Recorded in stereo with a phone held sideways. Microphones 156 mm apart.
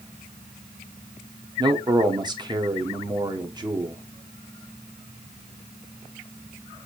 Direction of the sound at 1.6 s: 25° right (ahead or behind).